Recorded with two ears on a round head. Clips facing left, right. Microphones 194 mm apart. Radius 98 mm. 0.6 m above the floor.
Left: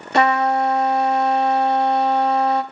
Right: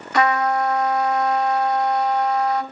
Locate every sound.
0.1 s a trumpet: 25° left (ahead or behind), 0.6 m